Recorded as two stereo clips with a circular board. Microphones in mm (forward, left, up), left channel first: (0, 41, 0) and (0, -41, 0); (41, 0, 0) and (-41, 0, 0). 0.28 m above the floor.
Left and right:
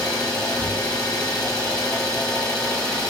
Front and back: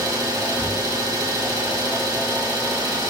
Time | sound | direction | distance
0.0 | an engine running | 165° left | 1.3 m